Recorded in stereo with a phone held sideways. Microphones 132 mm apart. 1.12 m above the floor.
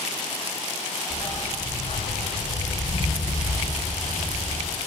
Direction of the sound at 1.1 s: 30° left (ahead or behind).